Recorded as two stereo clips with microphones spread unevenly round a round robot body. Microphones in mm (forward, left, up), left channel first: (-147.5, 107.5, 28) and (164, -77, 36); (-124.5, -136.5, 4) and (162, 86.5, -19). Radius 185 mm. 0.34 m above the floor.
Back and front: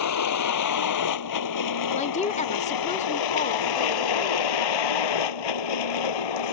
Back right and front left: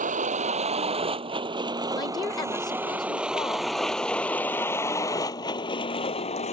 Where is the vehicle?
110° left; by 6.5 s 145° left.